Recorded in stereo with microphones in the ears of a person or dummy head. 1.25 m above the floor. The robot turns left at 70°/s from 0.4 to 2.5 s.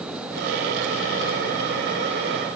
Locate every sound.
Only background noise.